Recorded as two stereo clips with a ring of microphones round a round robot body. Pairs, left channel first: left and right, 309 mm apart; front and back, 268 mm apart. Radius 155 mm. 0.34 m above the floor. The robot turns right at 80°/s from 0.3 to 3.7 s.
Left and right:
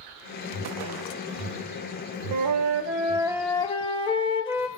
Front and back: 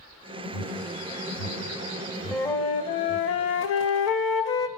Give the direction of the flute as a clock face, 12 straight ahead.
3 o'clock.